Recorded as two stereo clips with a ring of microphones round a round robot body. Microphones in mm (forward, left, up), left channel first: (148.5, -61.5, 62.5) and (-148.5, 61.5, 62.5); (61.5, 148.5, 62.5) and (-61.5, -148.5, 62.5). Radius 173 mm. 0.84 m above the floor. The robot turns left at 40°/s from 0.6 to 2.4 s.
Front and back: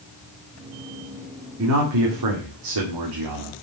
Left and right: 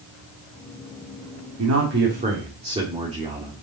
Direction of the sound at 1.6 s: 155° right.